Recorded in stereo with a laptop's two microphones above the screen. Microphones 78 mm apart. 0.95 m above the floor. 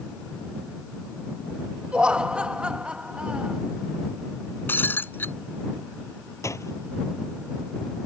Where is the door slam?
40° left (ahead or behind).